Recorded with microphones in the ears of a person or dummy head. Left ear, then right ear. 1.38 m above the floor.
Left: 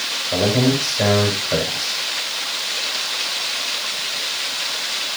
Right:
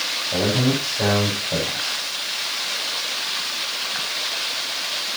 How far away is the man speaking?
About 7.5 m.